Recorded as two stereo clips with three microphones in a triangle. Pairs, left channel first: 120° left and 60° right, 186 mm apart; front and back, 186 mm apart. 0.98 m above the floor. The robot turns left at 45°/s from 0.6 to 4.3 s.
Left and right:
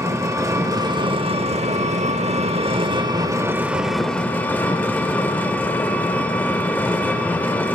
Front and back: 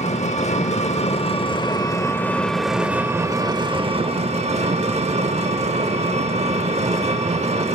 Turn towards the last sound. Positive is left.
turn(degrees=-165)